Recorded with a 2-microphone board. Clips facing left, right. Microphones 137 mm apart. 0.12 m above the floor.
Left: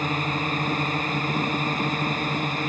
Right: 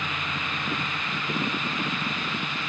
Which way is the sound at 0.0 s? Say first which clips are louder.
Left 7 dB; 40° left (ahead or behind).